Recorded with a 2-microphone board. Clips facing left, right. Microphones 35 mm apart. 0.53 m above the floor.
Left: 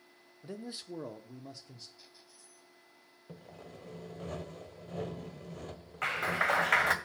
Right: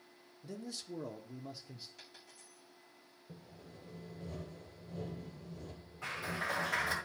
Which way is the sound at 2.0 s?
75° right (ahead or behind).